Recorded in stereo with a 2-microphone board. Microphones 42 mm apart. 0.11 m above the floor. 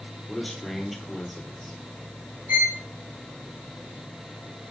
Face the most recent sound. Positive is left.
turn(degrees=-60)  # may be behind; listen again after turning